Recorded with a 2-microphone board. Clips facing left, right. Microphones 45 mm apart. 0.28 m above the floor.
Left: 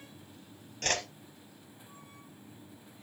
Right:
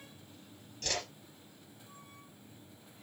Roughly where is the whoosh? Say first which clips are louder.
Left 5 dB; left.